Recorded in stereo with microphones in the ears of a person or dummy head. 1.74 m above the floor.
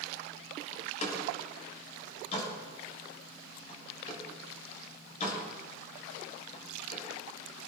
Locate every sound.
0.7 s a door slam: 40° left (ahead or behind), 6.5 m